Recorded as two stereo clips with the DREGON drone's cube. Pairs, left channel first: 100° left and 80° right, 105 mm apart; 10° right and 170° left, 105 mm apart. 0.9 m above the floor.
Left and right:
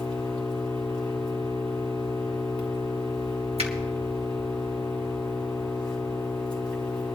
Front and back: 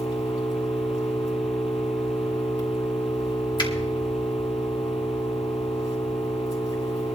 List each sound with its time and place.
0.0 s an engine running: 20° left, 3 m
3.6 s a finger snap: 60° right, 1.7 m